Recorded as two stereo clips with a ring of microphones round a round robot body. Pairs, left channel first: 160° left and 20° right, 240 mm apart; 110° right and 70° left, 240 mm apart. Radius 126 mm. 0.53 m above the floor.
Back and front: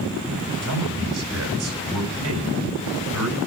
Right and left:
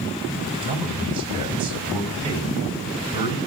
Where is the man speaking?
Straight ahead, 4 m.